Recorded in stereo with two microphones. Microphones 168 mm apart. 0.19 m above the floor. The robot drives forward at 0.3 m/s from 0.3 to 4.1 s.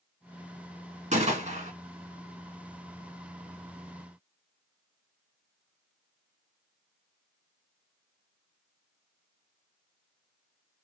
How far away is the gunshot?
About 1.8 m.